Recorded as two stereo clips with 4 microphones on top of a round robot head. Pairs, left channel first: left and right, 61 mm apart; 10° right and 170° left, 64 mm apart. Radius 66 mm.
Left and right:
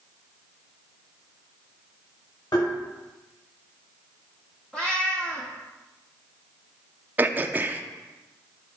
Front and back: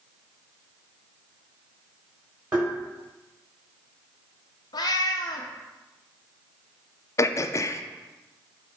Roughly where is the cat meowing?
Ahead.